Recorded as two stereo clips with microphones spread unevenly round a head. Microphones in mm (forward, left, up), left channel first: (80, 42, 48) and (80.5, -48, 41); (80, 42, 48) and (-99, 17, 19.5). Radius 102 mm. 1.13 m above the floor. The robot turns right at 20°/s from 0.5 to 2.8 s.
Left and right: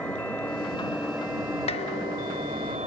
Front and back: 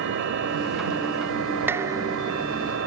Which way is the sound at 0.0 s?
170° left.